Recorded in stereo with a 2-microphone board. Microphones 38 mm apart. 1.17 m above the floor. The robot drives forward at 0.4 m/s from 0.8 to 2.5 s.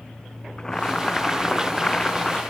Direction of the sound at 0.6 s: 15° left (ahead or behind).